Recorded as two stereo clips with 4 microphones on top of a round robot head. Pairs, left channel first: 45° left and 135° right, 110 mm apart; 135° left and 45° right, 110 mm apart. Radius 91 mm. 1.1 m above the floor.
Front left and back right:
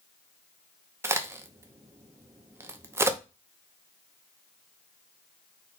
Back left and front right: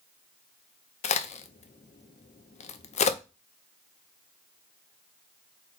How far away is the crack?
About 0.6 m.